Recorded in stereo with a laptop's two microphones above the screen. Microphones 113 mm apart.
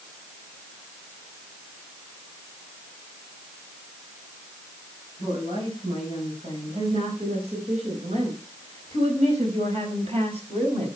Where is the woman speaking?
50° right (ahead or behind), 6 m; by 10.9 s 55° right (ahead or behind), 5.5 m.